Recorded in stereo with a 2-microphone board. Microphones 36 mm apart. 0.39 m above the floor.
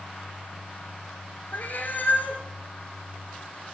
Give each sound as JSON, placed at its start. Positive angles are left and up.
{"t": 1.5, "sound": "a cat meowing", "side_deg": 60, "distance_m": 1.8}